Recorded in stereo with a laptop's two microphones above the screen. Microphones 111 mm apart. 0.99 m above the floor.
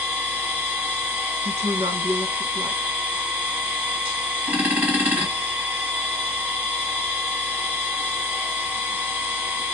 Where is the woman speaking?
70° right (ahead or behind), 1.2 m.